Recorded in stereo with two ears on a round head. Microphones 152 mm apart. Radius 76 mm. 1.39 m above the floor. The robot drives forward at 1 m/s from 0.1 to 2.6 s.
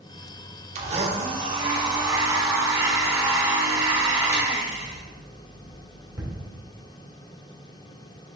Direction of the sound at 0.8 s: 40° right (ahead or behind).